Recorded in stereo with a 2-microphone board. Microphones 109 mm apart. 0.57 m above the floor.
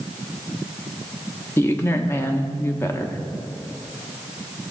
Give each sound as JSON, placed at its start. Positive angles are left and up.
{"t": 1.6, "sound": "a woman speaking", "side_deg": 20, "distance_m": 0.6}